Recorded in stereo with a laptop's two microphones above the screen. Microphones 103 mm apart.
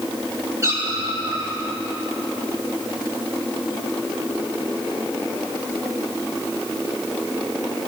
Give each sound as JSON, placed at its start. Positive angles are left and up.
{"t": 0.6, "sound": "a cat meowing", "side_deg": -30, "distance_m": 4.0}